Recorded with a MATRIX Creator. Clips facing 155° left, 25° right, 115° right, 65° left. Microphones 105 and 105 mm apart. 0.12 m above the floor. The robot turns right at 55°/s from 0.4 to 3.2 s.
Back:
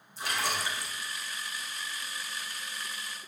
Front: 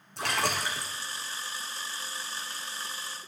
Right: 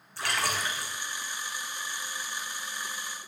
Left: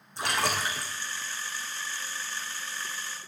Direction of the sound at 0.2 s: Straight ahead.